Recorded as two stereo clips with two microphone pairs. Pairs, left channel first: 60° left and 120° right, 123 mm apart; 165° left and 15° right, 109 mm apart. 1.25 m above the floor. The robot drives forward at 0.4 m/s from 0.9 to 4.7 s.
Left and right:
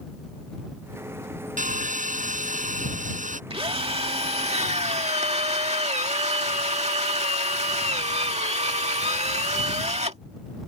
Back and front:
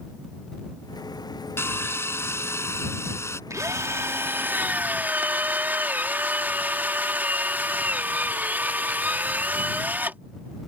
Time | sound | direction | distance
1.6 | sawing | 125° right | ?
3.5 | a drill | 75° right | ?